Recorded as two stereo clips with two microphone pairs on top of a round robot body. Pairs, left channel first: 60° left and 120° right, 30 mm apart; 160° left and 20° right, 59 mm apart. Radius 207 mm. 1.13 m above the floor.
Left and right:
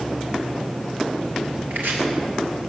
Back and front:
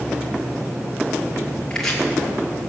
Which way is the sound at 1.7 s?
115° right.